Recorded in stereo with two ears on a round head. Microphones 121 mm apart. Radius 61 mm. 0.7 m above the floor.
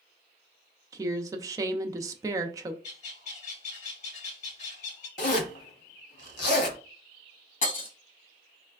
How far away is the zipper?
About 1.0 m.